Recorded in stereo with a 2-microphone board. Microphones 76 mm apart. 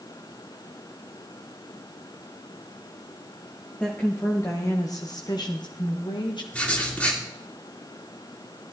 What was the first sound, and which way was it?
A woman speaking, 20° left (ahead or behind).